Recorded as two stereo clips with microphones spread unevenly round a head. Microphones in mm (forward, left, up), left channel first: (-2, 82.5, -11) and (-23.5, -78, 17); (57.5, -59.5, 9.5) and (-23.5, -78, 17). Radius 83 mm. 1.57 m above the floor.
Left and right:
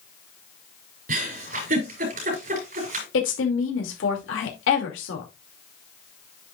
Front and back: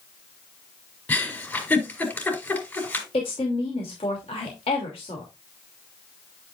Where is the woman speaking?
65° left, 2.5 m.